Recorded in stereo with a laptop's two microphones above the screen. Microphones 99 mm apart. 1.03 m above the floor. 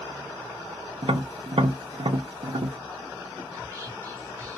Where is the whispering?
30° right (ahead or behind), 0.9 m.